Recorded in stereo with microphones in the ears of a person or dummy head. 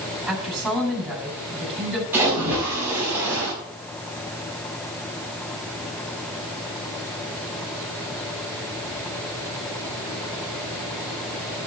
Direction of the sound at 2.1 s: 10° right (ahead or behind).